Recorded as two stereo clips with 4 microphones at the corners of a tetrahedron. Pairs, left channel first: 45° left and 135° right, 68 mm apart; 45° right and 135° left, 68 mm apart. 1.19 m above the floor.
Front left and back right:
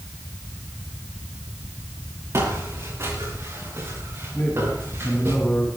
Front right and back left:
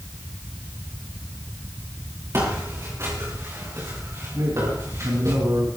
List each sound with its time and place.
2.3 s footsteps: straight behind, 7.5 m; by 5.3 s 175° left, 9.5 m
4.3 s a man speaking: 105° left, 8.5 m